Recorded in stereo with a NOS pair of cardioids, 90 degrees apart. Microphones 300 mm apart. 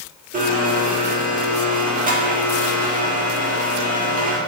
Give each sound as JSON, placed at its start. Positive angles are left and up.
{"t": 0.3, "sound": "a blender", "azimuth_deg": -25, "distance_m": 2.0}